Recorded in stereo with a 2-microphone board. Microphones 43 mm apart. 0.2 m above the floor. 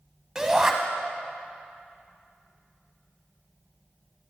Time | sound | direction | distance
0.3 | a shout | 15° right (ahead or behind) | 1.2 m